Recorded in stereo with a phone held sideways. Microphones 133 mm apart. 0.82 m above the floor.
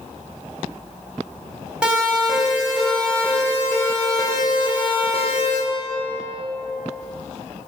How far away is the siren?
About 4.5 m.